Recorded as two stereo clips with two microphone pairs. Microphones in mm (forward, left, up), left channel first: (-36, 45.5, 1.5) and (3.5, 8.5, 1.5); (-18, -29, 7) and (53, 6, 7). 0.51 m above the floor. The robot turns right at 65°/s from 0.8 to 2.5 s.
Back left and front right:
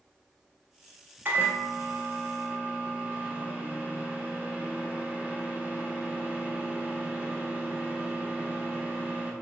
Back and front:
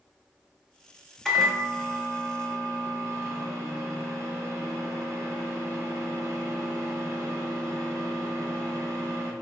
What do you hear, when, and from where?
1.2 s a microwave: 75° right, 0.6 m; by 9.3 s 10° left, 0.6 m